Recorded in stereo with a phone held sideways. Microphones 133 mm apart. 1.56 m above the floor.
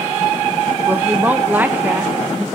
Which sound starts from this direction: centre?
A woman speaking, at 0.9 s.